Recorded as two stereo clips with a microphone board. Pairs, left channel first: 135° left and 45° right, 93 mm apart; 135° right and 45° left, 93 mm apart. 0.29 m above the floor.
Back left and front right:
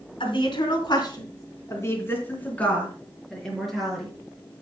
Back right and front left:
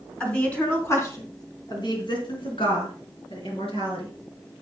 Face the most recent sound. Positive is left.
turn(degrees=-130)